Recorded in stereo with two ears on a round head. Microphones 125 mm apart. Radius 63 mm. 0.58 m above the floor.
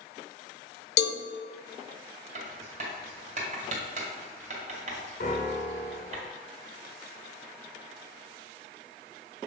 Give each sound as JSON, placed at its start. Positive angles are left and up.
{"t": 1.0, "sound": "a cowbell", "side_deg": 85, "distance_m": 0.5}
{"t": 2.4, "sound": "writing", "side_deg": -55, "distance_m": 1.6}
{"t": 5.2, "sound": "a piano", "side_deg": 60, "distance_m": 1.8}